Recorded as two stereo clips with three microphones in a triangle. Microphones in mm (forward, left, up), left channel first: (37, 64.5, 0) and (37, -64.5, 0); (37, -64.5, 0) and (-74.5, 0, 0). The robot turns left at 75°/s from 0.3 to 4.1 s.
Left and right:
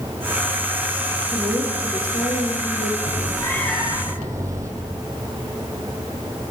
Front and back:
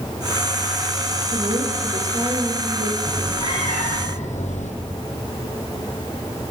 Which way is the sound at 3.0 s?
55° left.